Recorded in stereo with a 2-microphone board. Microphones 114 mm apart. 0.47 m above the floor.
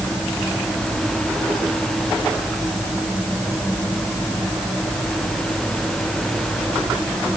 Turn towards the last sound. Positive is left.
No sound to turn to.